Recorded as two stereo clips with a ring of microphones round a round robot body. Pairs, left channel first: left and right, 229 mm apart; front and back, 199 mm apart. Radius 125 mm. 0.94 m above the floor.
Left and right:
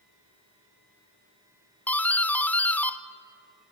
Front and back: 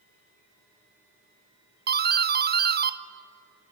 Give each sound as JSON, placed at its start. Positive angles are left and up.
{"t": 1.9, "sound": "a doorbell", "azimuth_deg": 170, "distance_m": 0.8}